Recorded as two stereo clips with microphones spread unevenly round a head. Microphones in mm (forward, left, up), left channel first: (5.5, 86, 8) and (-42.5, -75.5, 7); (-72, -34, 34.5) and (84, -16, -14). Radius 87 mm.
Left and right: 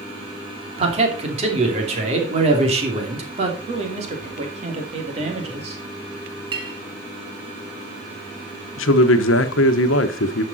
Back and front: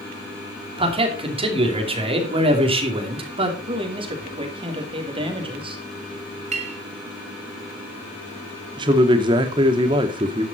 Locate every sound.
0.8 s a man speaking: 50° right, 2.5 m
3.7 s a man speaking: 50° right, 2.5 m
6.5 s a clink: 45° right, 1.5 m
8.8 s a man speaking: 70° left, 1.1 m